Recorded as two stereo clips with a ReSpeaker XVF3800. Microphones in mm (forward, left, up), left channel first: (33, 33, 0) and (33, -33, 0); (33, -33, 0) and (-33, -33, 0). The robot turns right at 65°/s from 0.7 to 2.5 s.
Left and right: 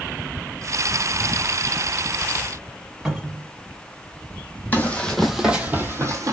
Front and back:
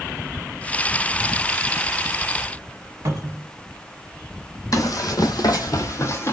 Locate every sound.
3.0 s a cupboard door: 170° right, 0.7 m
4.7 s running footsteps: 25° left, 0.7 m; by 6.3 s 55° right, 0.7 m